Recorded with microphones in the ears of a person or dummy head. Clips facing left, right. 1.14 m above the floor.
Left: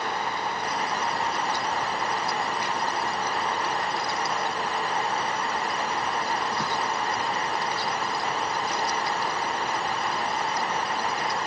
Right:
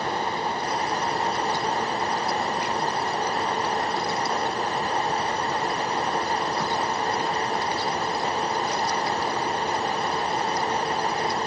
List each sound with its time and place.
Only background noise.